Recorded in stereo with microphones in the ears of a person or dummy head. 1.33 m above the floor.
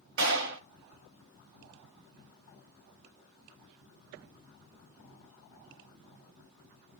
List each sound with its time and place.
0.2 s a clap: 65° right (ahead or behind), 1.4 m